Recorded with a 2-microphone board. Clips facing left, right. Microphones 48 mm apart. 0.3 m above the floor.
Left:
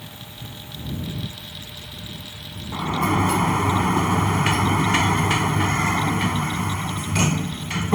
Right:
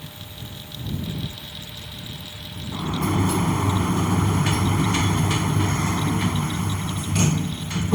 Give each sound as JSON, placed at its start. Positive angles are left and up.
{"t": 2.7, "sound": "a sliding door", "side_deg": 55}